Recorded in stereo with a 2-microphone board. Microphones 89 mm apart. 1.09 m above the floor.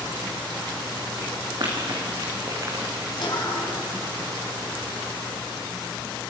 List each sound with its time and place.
1.6 s running footsteps: 55° right (ahead or behind), 5 m; by 3.1 s 35° right (ahead or behind), 5.5 m
3.2 s a cough: 60° left (ahead or behind), 6 m